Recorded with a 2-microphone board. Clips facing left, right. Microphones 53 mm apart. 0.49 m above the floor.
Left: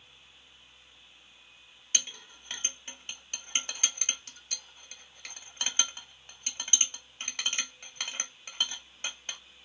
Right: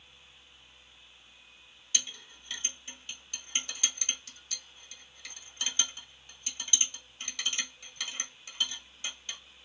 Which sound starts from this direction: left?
A clink, at 1.9 s.